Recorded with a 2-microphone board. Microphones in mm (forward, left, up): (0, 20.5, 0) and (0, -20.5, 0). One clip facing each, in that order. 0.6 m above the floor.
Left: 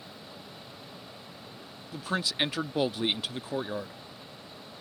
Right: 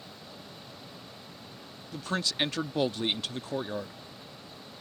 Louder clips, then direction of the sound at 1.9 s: Left 1 dB; 5° left (ahead or behind).